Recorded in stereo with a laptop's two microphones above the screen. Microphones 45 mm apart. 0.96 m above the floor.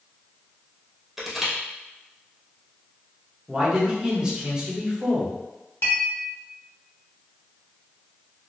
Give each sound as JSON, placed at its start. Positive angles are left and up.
{"t": 1.2, "sound": "crushing", "side_deg": -5, "distance_m": 0.5}
{"t": 3.5, "sound": "a man speaking", "side_deg": -20, "distance_m": 1.1}
{"t": 5.8, "sound": "a clink", "side_deg": 60, "distance_m": 0.8}